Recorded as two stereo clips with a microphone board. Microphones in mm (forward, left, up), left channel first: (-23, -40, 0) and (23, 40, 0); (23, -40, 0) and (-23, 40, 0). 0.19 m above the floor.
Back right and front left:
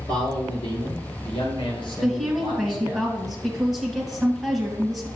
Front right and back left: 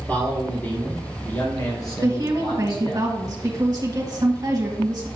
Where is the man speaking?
130° right, 3 m; by 3.0 s 90° right, 3 m.